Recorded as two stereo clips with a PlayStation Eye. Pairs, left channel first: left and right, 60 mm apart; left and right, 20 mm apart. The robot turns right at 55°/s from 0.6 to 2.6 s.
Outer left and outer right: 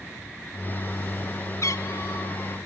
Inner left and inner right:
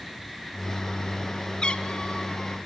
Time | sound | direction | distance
1.6 | a cat meowing | 50° left | 1.1 m